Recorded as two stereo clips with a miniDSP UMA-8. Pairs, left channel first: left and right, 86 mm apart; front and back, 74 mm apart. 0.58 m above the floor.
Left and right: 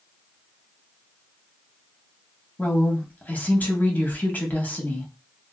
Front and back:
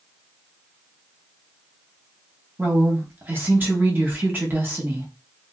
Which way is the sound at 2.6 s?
145° left.